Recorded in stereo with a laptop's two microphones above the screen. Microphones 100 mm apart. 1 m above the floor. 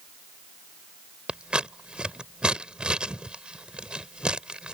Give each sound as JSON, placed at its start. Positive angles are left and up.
{"t": 1.3, "sound": "scissors", "side_deg": -10}